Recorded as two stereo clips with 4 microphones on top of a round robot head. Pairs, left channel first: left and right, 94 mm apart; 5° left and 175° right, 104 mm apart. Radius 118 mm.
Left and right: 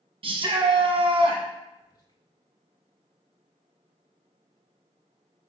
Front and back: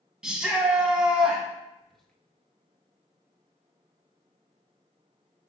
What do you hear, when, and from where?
0.2 s a shout: 95° right, 1.0 m
1.8 s whispering: 95° left, 1.0 m